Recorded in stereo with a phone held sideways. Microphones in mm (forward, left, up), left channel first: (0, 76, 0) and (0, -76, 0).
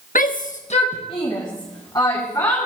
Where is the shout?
65° left (ahead or behind), 0.9 m; by 2.7 s 20° left (ahead or behind), 4 m.